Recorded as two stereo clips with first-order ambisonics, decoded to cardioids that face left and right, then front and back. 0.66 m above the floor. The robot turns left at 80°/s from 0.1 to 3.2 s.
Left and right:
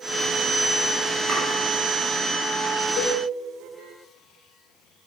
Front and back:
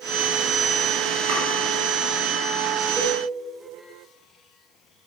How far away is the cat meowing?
I don't hear a cat meowing.